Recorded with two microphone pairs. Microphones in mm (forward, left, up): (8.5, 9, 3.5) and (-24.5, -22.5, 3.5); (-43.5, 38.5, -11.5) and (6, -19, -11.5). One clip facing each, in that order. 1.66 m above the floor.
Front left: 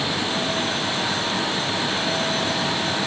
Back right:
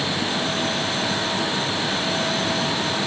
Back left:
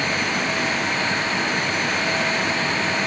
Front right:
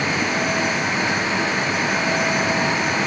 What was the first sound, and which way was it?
Only background noise.